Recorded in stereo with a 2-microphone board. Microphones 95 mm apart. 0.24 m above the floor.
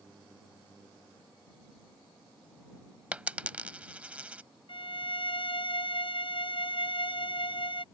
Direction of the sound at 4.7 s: 65° left (ahead or behind).